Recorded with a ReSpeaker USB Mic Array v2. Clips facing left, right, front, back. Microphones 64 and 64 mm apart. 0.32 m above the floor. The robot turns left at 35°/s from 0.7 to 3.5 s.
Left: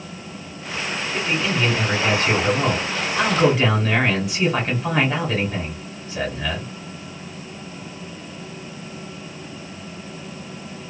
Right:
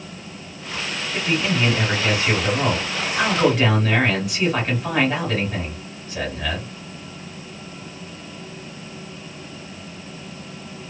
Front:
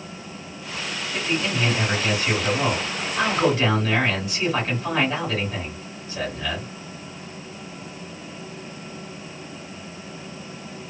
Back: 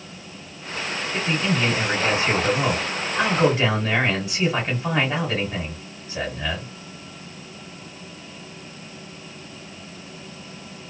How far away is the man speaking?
About 1.5 m.